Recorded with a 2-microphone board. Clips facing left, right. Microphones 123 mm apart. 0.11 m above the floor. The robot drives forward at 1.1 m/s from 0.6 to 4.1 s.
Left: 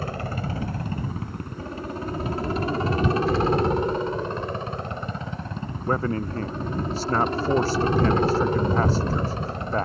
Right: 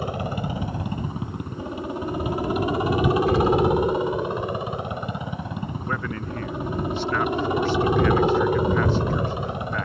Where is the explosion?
45° right (ahead or behind); by 4.6 s 35° right (ahead or behind).